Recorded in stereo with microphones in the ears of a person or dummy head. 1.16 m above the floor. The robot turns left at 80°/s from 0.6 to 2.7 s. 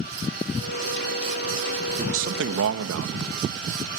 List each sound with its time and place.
2.0 s a man speaking: 30° right (ahead or behind), 1.2 m; by 3.9 s 80° right, 1.2 m